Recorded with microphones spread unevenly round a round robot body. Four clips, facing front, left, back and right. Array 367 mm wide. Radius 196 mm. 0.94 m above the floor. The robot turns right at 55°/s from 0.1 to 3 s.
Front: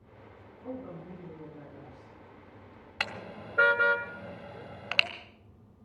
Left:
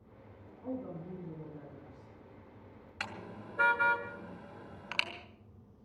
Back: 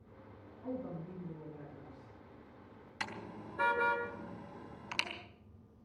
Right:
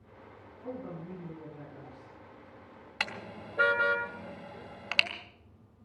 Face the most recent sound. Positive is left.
turn(degrees=-25)